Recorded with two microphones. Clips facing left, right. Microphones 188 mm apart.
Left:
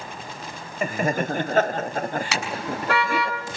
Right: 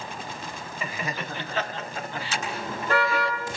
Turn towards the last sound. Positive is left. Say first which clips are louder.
# left 3 dB
turn(degrees=80)